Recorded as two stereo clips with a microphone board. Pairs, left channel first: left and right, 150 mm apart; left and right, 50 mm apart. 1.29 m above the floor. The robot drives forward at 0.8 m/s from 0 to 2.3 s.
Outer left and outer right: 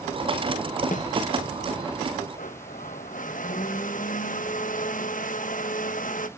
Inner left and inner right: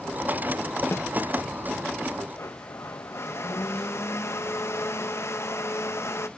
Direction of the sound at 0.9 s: 60° left (ahead or behind).